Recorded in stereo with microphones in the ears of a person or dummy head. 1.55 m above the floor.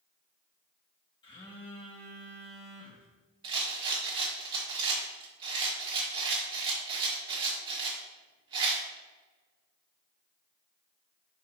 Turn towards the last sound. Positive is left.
turn(degrees=-25)  # may be behind; listen again after turning